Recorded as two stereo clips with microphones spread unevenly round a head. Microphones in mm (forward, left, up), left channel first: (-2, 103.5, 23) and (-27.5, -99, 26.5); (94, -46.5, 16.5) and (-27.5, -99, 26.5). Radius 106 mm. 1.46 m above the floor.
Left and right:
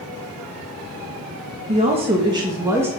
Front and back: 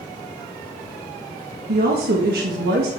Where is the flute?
No flute in this recording.